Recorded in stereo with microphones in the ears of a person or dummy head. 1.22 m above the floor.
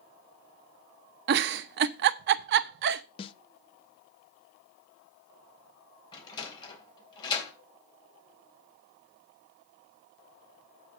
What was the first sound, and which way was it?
A giggle, 60° right (ahead or behind).